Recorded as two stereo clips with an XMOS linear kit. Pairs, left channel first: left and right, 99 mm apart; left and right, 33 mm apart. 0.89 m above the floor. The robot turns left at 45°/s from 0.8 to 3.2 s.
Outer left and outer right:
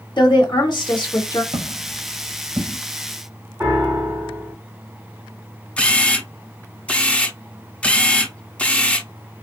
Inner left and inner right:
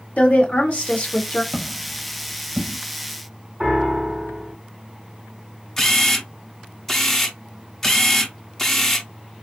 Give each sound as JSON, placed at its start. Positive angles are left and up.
{"t": 0.2, "sound": "a woman speaking", "side_deg": 55, "distance_m": 1.4}
{"t": 1.5, "sound": "footsteps", "side_deg": -70, "distance_m": 2.5}
{"t": 3.6, "sound": "a piano", "side_deg": -30, "distance_m": 2.5}
{"t": 5.8, "sound": "a camera shutter", "side_deg": 15, "distance_m": 0.6}